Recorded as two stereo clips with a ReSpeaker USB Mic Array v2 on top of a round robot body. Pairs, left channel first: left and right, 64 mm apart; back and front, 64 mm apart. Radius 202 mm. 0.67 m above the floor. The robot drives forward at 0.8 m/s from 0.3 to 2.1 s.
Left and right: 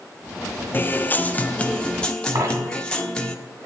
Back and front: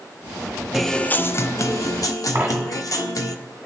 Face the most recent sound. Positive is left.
turn(degrees=-70)